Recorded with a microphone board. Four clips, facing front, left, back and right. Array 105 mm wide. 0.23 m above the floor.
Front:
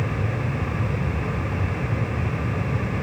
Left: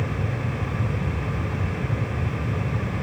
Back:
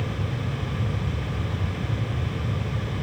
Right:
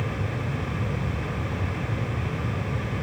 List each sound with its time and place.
Only background noise.